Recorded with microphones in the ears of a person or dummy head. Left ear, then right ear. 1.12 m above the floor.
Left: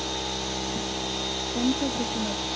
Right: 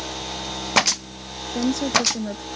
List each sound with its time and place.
1.5 s a woman speaking: 90° right